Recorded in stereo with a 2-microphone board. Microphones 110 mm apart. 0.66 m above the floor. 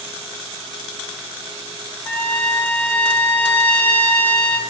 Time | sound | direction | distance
2.0 | a trumpet | 15° left (ahead or behind) | 0.7 m